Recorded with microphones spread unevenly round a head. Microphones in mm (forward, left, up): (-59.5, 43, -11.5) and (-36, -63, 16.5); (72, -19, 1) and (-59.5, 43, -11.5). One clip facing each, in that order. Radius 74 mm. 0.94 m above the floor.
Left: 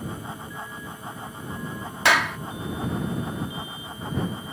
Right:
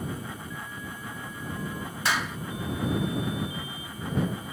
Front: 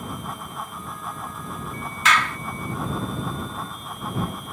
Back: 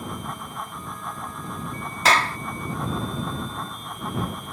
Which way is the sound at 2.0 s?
100° left.